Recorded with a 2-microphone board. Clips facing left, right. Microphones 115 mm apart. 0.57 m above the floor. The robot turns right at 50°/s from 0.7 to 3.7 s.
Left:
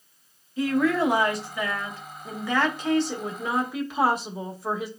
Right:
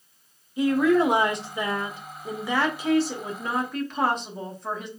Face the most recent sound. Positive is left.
turn(degrees=5)  # may be behind; listen again after turning